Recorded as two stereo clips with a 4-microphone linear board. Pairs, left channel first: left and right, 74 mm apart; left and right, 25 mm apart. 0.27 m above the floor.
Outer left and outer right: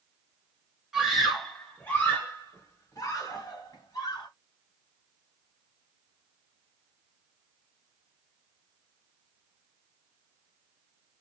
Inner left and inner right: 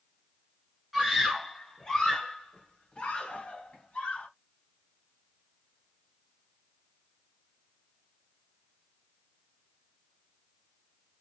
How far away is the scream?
About 1.0 m.